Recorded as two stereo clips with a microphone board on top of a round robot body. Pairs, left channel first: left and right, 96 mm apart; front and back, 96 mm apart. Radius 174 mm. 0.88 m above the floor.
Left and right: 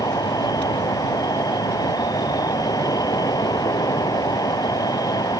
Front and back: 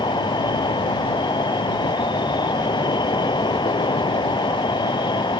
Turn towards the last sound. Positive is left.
turn(degrees=40)